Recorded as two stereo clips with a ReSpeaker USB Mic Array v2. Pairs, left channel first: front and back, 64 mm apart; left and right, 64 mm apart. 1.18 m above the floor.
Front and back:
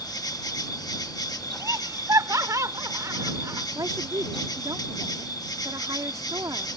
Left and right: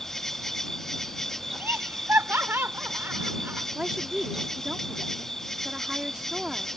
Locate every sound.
0.0 s an insect: 5° left
1.6 s laughter: 145° right
3.8 s a woman speaking: 165° right